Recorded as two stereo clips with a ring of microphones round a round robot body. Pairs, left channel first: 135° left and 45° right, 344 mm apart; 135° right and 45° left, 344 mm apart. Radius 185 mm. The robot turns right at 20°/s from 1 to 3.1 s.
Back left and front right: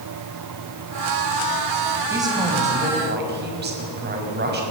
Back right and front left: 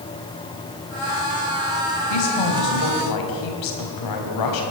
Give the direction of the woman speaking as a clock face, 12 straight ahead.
4 o'clock.